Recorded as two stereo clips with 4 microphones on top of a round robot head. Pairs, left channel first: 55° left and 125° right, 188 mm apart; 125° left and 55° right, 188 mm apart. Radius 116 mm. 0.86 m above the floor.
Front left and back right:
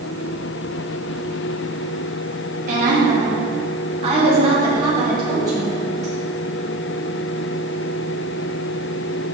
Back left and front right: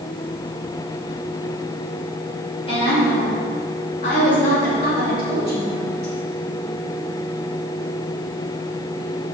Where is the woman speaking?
170° right, 3 m; by 6.1 s 160° left, 3.5 m.